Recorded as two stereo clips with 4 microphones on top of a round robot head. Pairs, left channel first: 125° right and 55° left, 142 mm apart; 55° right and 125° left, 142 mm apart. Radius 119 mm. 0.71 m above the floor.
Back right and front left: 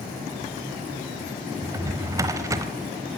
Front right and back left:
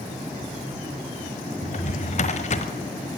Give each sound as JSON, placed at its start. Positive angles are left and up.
{"t": 1.6, "sound": "a drawer", "azimuth_deg": -15, "distance_m": 1.2}